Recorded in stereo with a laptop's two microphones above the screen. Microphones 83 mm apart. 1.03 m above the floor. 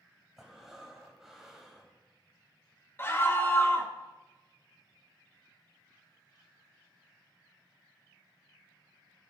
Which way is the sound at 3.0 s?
25° left (ahead or behind).